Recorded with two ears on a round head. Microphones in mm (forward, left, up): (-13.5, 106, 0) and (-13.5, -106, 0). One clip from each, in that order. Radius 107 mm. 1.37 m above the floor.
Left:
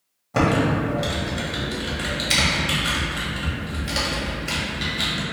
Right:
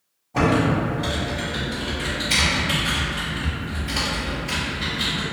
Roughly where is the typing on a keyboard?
Left.